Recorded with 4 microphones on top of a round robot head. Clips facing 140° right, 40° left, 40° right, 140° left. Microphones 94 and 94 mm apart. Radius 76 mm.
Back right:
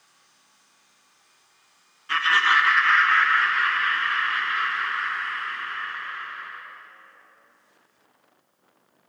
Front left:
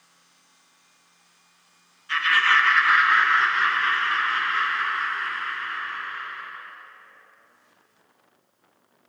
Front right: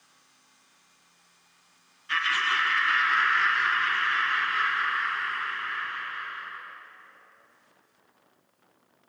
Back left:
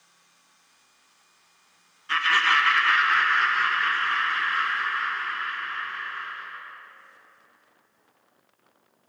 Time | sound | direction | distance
2.1 | laughter | 175° right | 0.7 m